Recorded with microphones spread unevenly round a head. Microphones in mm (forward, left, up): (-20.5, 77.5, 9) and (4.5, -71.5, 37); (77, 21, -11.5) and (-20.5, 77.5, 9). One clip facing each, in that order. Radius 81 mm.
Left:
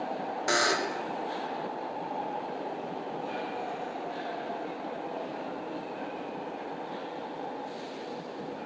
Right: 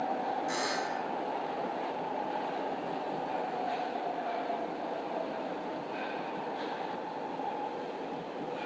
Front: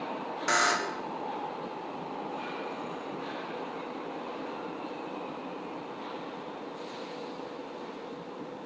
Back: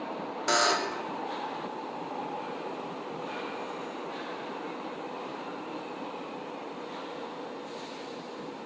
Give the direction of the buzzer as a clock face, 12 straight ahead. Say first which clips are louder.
Left 4 dB, back 2 dB; 9 o'clock.